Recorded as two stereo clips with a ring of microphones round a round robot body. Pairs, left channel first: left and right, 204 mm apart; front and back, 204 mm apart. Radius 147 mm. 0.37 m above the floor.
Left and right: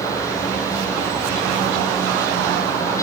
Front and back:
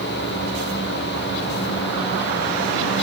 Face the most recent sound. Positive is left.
No sound to turn to.